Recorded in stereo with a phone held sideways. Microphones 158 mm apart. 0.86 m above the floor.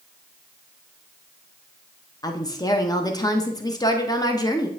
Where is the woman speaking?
25° left (ahead or behind), 0.8 m.